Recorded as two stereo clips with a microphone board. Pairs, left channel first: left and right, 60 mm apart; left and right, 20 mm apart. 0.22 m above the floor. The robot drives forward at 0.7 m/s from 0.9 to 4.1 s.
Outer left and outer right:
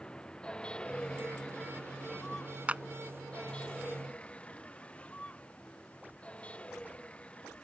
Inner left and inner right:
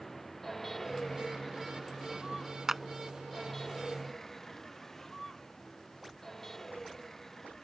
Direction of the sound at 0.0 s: 15° left (ahead or behind).